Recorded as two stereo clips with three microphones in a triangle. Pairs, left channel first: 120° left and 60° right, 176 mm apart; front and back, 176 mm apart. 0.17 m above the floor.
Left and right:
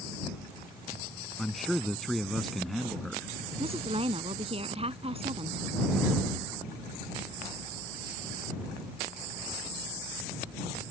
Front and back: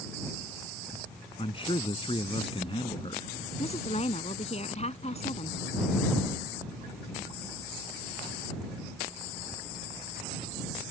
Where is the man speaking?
30° left.